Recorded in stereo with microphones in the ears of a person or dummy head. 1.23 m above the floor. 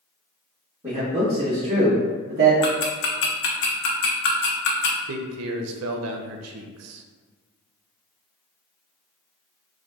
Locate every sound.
0.8 s a man speaking: 20° right (ahead or behind), 1.6 m; by 2.5 s 40° right (ahead or behind), 0.8 m
2.6 s ticking: 55° left (ahead or behind), 0.8 m
5.1 s a man speaking: 75° right (ahead or behind), 0.6 m